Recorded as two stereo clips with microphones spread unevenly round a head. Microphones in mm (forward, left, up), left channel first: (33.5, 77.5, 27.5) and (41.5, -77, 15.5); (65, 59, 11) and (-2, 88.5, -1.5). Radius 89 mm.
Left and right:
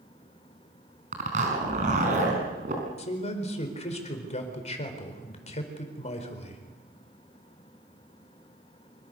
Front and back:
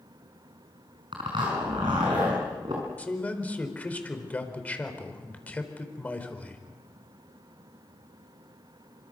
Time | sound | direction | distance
1.1 | a zipper | 140° right | 5 m
3.0 | a man speaking | 45° left | 4.5 m